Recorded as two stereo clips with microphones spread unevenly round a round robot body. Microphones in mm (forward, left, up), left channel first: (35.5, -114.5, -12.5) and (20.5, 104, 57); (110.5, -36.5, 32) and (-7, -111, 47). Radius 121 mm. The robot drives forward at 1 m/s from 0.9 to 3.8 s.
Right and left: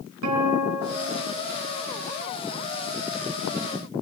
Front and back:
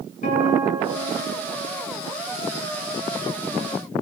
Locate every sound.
0.2 s a guitar: 90° left, 6.5 m; by 1.4 s 95° left, 6.5 m